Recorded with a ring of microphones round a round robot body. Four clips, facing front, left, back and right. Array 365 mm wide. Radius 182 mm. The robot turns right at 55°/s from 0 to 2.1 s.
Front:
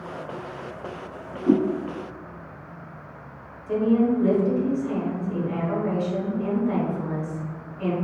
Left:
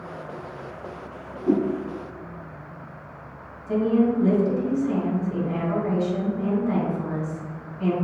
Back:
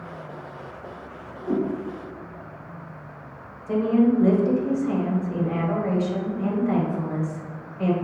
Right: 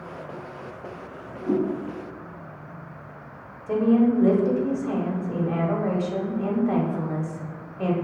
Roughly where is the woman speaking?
Right.